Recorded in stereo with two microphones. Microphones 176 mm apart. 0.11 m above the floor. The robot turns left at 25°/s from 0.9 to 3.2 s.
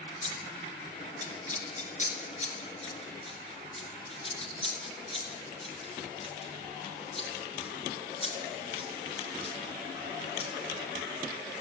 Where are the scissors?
40° left (ahead or behind), 1.6 m; by 10.5 s 30° left (ahead or behind), 1.6 m.